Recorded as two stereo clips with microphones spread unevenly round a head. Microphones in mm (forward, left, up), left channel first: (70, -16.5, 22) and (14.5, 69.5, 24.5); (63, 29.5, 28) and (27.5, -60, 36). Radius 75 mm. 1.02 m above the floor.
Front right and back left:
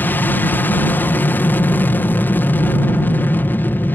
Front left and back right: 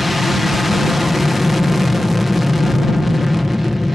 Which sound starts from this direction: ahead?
An aircraft, at 0.0 s.